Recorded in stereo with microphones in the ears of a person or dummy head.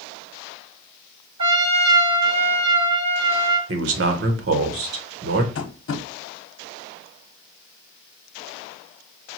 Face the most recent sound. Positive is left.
turn(degrees=65)  # may be behind; listen again after turning